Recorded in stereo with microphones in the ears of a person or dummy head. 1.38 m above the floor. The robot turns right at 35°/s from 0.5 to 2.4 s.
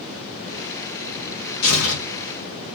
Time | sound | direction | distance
1.6 | tearing paper | 85° left | 1.8 m